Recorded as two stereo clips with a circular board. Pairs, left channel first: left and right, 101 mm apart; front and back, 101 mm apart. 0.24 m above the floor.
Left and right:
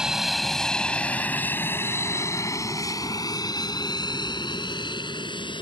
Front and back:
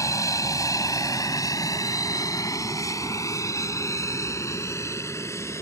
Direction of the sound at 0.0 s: 10° right.